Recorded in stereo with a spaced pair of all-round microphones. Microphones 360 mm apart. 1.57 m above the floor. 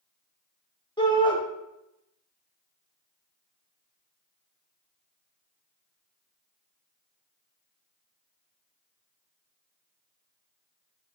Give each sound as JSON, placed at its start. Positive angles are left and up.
{"t": 1.0, "sound": "a shout", "side_deg": 15, "distance_m": 0.9}